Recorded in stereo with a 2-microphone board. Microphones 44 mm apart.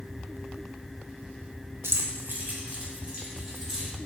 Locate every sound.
1.8 s keys jangling: 85° right, 0.5 m; by 3.9 s 15° right (ahead or behind), 1.7 m